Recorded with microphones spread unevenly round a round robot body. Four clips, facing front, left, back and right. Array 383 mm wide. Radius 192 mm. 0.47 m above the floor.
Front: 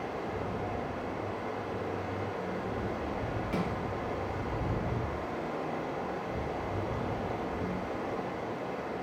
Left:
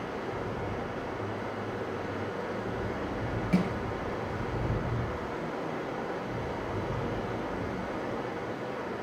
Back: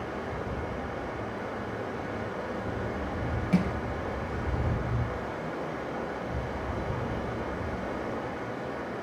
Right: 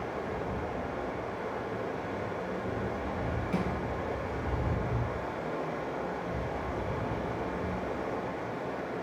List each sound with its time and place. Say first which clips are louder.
0.0 s running water: even, back 1 dB; straight behind, 1.8 m
3.5 s crushing: left 5 dB, back 7 dB; 150° left, 1.0 m